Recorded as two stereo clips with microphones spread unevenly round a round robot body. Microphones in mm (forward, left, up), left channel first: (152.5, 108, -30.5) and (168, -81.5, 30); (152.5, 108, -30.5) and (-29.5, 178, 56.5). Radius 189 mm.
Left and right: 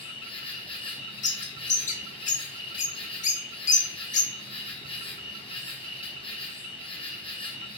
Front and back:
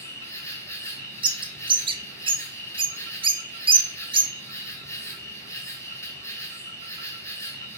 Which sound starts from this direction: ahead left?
An insect, at 0.0 s.